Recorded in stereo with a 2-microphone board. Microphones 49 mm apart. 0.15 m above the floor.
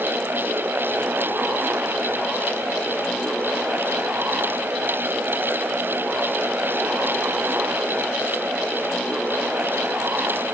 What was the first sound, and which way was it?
Only background noise.